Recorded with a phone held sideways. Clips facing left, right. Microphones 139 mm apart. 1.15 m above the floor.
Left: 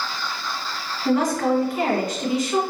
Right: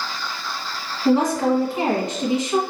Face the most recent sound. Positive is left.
turn(degrees=-25)  # may be behind; listen again after turning